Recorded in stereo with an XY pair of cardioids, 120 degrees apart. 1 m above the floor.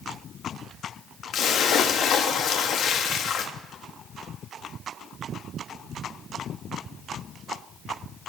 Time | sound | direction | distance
1.3 | a splash | 60° left | 1.2 m